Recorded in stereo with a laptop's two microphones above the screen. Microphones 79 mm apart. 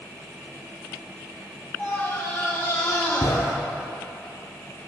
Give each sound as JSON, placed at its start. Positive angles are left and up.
{"t": 1.8, "sound": "a scream", "side_deg": 25, "distance_m": 1.5}